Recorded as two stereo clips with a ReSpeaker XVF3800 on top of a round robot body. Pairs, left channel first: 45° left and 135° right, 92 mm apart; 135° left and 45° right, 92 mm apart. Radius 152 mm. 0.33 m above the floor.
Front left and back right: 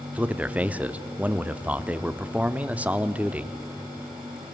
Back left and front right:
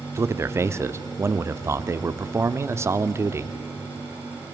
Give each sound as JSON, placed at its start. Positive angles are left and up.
{"t": 0.1, "sound": "a man speaking", "azimuth_deg": -70, "distance_m": 1.1}